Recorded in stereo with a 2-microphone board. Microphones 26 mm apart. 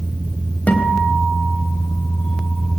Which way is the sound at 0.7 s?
60° left (ahead or behind).